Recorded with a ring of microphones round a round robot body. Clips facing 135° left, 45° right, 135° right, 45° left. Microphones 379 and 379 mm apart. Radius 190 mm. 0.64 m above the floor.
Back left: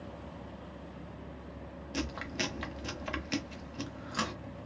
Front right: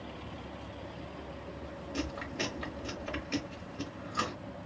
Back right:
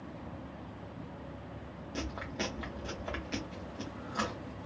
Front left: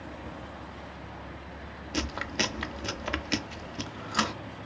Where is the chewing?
70° left, 0.5 m.